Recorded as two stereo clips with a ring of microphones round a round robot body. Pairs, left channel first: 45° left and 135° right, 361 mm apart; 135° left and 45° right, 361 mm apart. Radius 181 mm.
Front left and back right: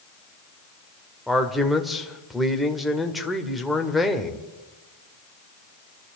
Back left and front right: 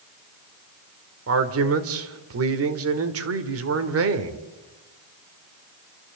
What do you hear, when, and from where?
1.3 s a man speaking: 45° right, 1.6 m